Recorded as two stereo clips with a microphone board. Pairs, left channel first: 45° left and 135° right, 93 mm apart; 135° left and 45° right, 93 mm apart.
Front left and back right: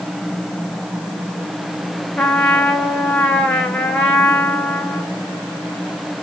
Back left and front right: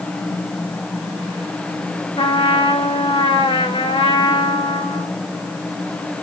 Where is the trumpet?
125° left, 1.6 m.